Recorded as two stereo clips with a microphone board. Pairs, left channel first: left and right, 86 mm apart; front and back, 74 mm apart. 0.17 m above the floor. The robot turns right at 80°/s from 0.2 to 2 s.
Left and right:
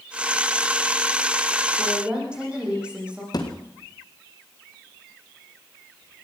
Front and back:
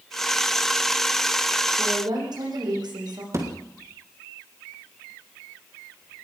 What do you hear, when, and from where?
1.8 s a woman speaking: 175° left, 9.5 m; by 3.2 s 165° right, 9.5 m
3.3 s a thud: 135° left, 4 m